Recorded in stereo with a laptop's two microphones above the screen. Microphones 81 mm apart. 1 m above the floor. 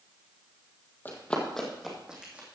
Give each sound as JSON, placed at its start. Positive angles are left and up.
{"t": 1.1, "sound": "running footsteps", "side_deg": 25, "distance_m": 1.7}